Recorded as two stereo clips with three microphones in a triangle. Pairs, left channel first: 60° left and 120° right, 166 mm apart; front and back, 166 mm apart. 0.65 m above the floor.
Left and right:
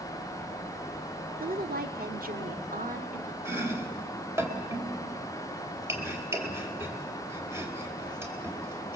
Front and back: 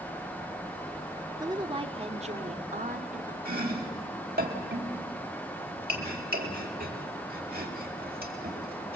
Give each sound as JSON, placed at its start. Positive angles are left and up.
{"t": 1.4, "sound": "a woman speaking", "azimuth_deg": -115, "distance_m": 1.7}
{"t": 3.5, "sound": "chopping", "azimuth_deg": 165, "distance_m": 4.0}